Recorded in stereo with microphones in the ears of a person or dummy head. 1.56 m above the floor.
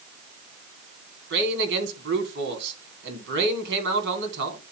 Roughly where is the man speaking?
Right.